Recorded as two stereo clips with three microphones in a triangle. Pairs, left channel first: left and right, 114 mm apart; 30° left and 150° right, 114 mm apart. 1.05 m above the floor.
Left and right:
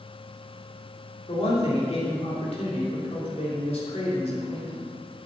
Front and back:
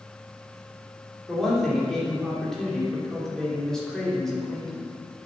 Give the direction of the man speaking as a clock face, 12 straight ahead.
8 o'clock.